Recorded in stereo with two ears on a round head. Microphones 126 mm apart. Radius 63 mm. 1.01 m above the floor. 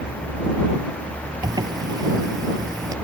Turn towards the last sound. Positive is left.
turn(degrees=-25)  # may be behind; listen again after turning